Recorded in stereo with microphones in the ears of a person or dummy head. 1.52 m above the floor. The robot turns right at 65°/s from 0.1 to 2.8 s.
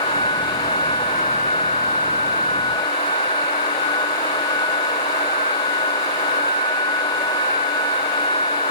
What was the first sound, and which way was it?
Only background noise.